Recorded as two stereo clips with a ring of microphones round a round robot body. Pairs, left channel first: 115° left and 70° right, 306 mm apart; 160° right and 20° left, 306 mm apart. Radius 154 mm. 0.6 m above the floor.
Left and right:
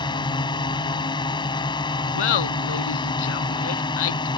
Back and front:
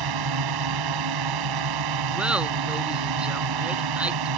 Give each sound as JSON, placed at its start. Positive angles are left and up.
{"t": 0.0, "sound": "a drone", "azimuth_deg": 35}
{"t": 2.1, "sound": "laughter", "azimuth_deg": 110}